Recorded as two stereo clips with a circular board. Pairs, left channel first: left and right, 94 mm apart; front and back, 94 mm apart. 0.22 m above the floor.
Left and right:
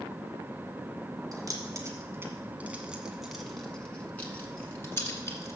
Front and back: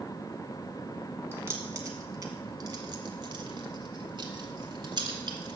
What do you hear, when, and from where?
1.3 s keys jangling: 120° right, 1.7 m; by 5.6 s 145° left, 2.5 m